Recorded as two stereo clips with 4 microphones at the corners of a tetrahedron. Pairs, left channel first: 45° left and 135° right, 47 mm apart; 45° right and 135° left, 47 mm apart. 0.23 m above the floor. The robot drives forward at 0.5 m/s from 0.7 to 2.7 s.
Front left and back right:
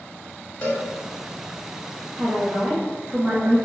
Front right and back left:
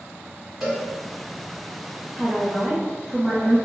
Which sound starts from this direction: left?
A cowbell, at 0.6 s.